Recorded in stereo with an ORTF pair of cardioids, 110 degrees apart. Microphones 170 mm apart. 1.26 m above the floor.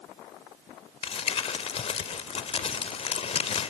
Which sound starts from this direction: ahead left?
Crumpling, at 1.0 s.